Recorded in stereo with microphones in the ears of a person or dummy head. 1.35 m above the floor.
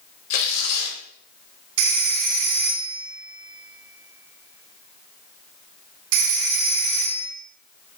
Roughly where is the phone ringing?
Right.